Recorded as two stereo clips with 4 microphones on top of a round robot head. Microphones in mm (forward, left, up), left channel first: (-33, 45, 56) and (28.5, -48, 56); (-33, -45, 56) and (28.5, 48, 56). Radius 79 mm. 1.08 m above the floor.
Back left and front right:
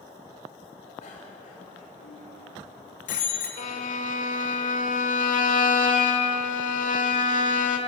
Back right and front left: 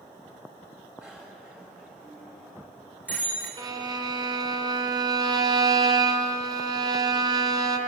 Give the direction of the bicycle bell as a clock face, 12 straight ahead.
7 o'clock.